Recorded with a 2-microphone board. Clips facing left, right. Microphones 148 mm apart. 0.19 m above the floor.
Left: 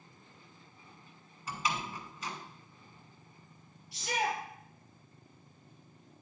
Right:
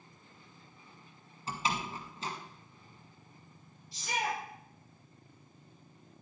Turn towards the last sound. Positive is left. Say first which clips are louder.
# left 2 dB
turn(degrees=70)  # may be behind; listen again after turning